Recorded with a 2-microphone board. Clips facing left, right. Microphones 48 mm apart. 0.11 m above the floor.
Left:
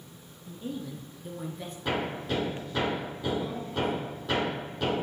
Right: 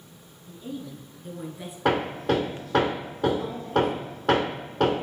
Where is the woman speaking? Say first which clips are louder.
Even; 35° left (ahead or behind), 1.5 m; by 1.8 s 15° right (ahead or behind), 1.7 m.